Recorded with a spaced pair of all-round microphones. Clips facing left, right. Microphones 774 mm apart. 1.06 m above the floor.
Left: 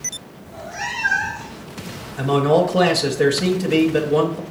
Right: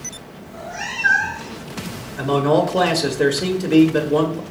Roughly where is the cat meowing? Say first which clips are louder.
Even; centre.